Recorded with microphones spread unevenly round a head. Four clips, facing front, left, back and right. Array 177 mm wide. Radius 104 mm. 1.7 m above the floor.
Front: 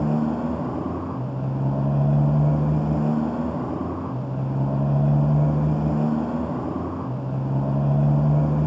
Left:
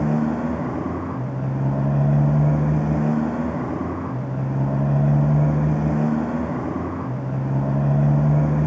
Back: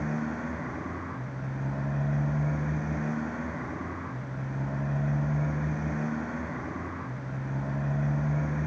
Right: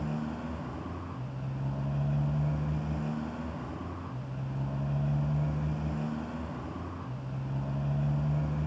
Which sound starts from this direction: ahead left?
A motorcycle, at 0.0 s.